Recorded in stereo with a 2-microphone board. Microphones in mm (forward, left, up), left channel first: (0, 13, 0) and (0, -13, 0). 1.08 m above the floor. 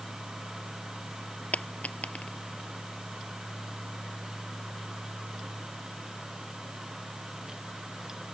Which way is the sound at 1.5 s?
80° left.